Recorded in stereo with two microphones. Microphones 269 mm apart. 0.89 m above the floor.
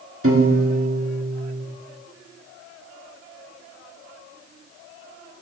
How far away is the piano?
About 1.7 m.